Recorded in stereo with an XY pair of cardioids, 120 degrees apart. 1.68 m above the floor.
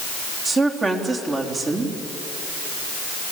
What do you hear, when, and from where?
0.5 s a woman speaking: 30° right, 4 m